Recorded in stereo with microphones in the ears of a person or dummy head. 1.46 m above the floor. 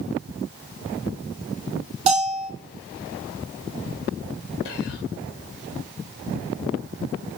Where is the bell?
35° right (ahead or behind), 2.5 m.